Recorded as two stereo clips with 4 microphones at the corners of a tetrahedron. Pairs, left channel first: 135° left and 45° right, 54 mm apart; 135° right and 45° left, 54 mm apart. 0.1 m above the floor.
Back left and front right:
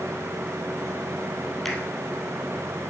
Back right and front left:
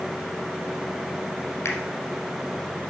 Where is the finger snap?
140° right, 1.8 m.